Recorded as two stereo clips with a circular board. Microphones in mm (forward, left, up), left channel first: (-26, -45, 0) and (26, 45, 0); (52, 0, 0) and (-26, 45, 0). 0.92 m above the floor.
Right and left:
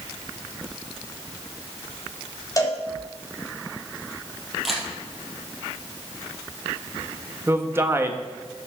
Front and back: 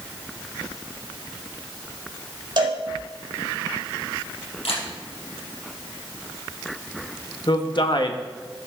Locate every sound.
2.6 s a cowbell: straight behind, 2 m
4.7 s a camera shutter: 30° right, 4 m
7.5 s a man speaking: 5° right, 1.2 m